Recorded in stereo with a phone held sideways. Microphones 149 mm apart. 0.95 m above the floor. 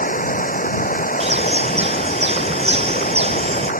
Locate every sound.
0.0 s running water: 65° left (ahead or behind)
1.2 s a bird: 45° right (ahead or behind)